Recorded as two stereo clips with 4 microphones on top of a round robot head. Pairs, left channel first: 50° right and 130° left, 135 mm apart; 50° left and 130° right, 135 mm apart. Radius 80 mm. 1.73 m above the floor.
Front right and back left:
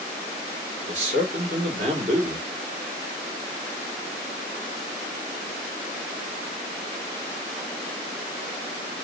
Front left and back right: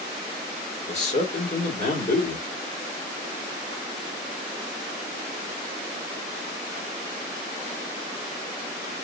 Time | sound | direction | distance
0.9 | a man speaking | 90° left | 2.5 m